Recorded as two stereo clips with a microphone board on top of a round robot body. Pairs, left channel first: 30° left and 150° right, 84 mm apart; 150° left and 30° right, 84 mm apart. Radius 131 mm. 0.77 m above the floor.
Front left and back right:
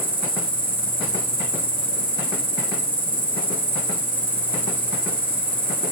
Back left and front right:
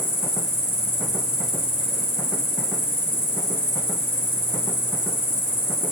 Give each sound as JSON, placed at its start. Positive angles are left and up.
{"t": 0.0, "sound": "an insect", "azimuth_deg": -145, "distance_m": 8.0}